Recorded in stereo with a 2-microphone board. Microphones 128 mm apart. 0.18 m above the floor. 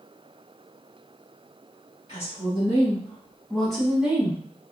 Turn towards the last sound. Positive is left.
turn(degrees=-20)  # may be behind; listen again after turning